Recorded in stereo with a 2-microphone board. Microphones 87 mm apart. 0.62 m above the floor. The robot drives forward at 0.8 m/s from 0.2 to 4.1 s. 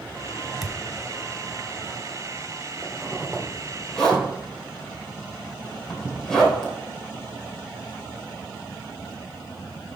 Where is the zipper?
10° left (ahead or behind), 1.7 m; by 6.7 s 5° left (ahead or behind), 2.5 m.